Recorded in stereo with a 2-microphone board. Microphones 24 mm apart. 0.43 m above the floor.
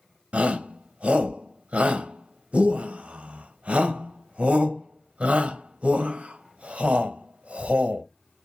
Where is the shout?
65° right (ahead or behind), 1.8 m.